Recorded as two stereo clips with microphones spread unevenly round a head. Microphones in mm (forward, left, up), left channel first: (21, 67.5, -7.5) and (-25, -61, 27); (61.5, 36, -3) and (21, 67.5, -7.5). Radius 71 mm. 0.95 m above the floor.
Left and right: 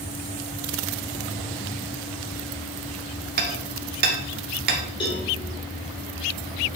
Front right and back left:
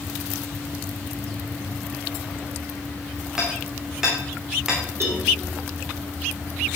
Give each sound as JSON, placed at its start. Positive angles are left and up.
{"t": 3.4, "sound": "hammering", "azimuth_deg": -130, "distance_m": 2.0}
{"t": 5.0, "sound": "a cowbell", "azimuth_deg": 120, "distance_m": 3.5}